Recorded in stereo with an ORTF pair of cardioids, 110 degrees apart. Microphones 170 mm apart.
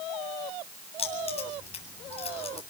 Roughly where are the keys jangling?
Ahead left.